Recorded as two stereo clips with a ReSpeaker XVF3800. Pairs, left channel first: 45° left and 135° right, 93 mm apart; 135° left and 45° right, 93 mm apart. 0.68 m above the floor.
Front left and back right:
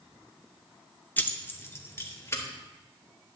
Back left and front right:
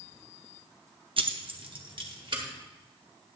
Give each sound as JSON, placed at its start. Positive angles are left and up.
{"t": 1.2, "sound": "keys jangling", "azimuth_deg": -25, "distance_m": 0.5}